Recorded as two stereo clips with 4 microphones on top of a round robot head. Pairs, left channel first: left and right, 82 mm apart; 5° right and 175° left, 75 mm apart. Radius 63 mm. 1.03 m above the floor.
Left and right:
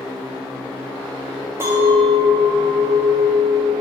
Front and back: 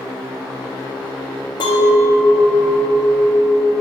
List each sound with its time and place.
1.6 s a clink: 25° right, 1.5 m